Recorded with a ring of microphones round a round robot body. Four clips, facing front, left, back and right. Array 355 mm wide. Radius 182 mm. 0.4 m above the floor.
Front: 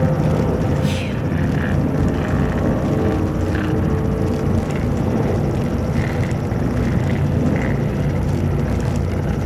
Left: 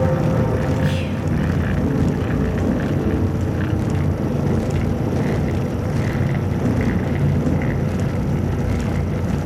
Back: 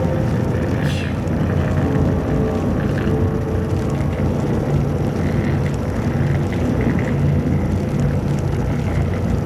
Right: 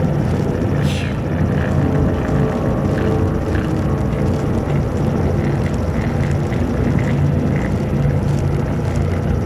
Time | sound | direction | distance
0.8 | whispering | 45° right | 2.5 m